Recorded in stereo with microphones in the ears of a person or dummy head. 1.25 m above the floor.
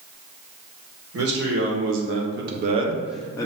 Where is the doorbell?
No doorbell in this recording.